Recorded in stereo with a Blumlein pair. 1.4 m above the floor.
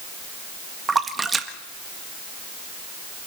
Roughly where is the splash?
Ahead.